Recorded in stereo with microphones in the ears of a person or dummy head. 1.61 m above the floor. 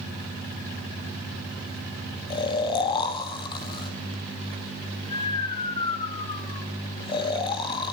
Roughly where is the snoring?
Left.